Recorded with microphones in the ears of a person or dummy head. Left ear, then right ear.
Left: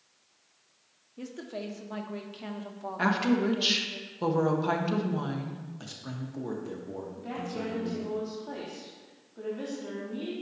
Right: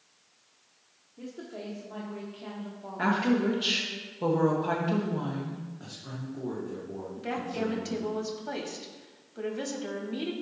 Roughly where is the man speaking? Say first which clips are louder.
Left 1 dB; left.